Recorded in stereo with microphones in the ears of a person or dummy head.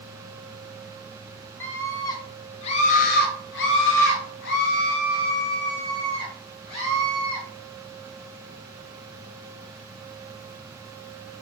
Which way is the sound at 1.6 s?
15° left (ahead or behind).